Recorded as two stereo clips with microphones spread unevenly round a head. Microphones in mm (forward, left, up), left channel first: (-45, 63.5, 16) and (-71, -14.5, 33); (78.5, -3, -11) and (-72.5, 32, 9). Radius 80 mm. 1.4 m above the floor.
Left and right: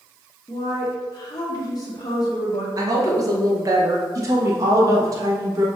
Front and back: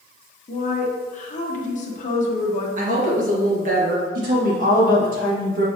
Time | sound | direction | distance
0.5 | a woman speaking | 25° left | 1.3 m
2.8 | a woman speaking | 150° right | 1.7 m
4.2 | a woman speaking | 155° right | 2 m